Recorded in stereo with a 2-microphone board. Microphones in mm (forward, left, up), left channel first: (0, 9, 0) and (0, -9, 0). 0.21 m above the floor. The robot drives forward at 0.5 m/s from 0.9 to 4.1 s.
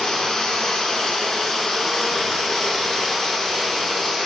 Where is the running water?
45° left (ahead or behind), 2.5 m; by 4.2 s 30° left (ahead or behind), 3.5 m.